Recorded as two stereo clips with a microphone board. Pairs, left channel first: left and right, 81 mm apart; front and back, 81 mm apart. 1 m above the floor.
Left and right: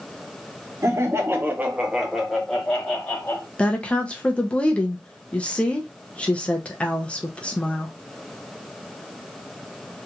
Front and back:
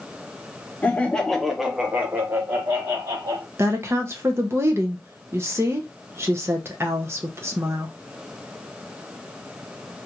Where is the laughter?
60° right, 0.9 m; by 3.5 s 150° left, 1.2 m.